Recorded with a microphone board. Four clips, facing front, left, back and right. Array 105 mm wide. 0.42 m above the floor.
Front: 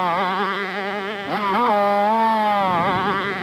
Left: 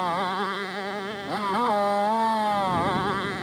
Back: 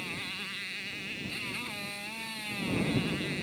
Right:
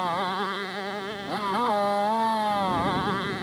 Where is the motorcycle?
5° left.